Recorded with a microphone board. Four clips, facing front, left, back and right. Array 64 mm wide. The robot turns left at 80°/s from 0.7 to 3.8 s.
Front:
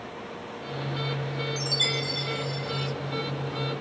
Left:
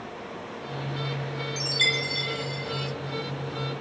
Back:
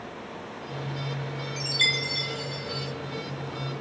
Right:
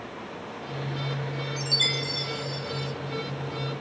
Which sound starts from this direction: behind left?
A chime, at 1.6 s.